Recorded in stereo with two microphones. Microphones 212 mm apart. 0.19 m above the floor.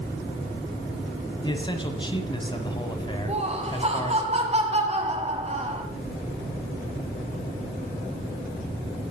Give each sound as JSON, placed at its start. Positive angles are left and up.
{"t": 1.4, "sound": "a man speaking", "side_deg": 20, "distance_m": 1.1}
{"t": 3.3, "sound": "laughter", "side_deg": -30, "distance_m": 1.4}